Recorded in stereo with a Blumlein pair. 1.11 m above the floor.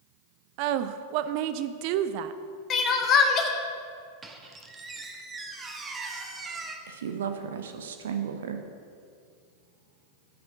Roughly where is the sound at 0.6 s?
Ahead right.